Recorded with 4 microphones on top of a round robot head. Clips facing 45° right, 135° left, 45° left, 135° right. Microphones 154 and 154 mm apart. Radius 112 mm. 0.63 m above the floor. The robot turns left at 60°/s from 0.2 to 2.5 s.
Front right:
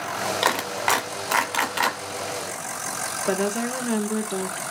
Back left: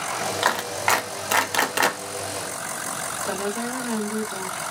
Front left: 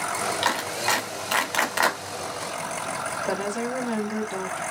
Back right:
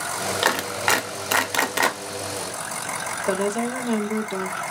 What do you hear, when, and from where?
0.4 s a clap: 115° right, 1.5 m; by 2.0 s 150° left, 1.5 m
3.3 s a woman speaking: 75° right, 1.9 m